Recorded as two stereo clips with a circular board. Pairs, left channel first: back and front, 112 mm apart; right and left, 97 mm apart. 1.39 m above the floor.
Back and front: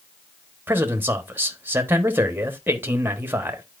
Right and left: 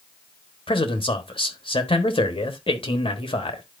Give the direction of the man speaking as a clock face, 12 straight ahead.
2 o'clock.